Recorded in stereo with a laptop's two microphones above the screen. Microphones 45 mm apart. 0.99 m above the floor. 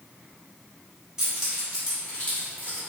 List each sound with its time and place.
1.2 s keys jangling: 10° right (ahead or behind), 1.6 m; by 2.8 s 40° left (ahead or behind), 1.9 m